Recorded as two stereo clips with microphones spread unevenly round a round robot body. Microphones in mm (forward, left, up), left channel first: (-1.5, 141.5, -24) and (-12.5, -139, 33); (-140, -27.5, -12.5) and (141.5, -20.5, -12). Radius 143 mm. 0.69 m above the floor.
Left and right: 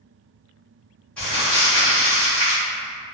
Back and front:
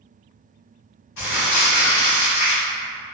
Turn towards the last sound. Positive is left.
turn(degrees=170)